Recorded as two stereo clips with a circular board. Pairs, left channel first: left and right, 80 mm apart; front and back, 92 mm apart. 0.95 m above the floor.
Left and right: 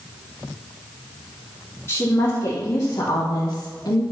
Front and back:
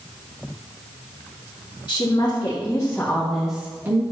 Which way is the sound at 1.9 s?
35° left.